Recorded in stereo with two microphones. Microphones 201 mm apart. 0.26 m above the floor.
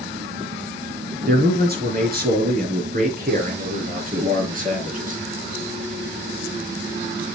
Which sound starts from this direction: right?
A man speaking, at 1.3 s.